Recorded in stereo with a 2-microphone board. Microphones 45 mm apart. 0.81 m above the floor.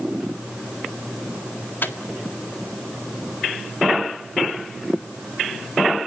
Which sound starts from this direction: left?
A microwave, at 1.8 s.